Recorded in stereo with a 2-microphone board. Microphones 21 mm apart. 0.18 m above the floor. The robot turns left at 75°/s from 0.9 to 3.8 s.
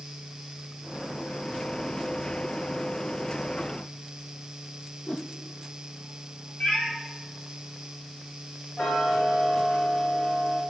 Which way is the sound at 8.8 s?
65° left (ahead or behind).